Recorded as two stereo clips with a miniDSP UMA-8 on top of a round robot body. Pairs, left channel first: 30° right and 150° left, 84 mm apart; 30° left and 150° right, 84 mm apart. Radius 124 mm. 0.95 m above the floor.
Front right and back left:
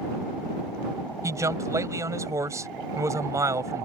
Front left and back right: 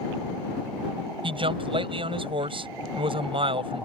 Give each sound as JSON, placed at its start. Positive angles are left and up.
{"t": 1.2, "sound": "a man speaking", "azimuth_deg": -160}